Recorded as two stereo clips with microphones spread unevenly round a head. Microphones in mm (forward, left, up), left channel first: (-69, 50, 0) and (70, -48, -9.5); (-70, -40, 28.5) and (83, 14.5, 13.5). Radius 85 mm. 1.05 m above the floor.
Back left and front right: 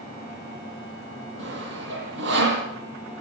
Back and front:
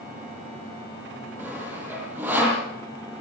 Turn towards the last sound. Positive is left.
turn(degrees=-60)